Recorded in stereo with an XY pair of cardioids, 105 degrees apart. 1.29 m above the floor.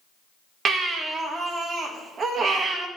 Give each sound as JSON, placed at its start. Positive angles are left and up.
{"t": 0.7, "sound": "a baby crying", "azimuth_deg": -45, "distance_m": 1.2}